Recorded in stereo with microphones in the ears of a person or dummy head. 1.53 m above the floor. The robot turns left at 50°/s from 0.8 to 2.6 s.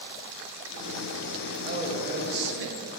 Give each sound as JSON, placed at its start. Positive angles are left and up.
{"t": 1.6, "sound": "a man speaking", "azimuth_deg": -30, "distance_m": 1.1}